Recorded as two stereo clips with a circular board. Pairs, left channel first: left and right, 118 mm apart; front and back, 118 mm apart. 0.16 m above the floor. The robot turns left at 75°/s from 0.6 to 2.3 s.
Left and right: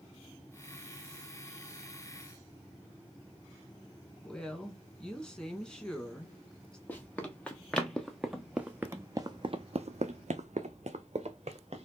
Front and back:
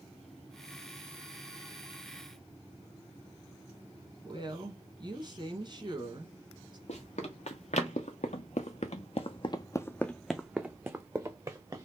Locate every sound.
4.2 s a woman speaking: 170° left, 1.3 m
6.9 s running footsteps: 15° left, 1.5 m; by 11.9 s 125° right, 1.2 m